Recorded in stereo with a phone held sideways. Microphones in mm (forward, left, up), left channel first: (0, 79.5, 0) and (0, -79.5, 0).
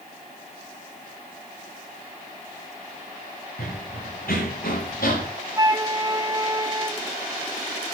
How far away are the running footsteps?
About 6.5 m.